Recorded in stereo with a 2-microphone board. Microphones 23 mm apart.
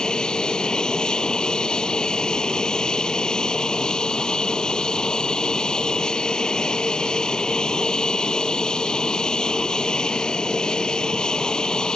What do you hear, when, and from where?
0.0 s an aircraft: 40° left (ahead or behind)